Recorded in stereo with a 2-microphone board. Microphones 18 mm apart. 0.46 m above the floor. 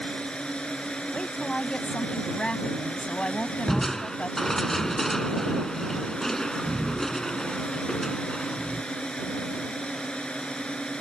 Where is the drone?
60° left (ahead or behind).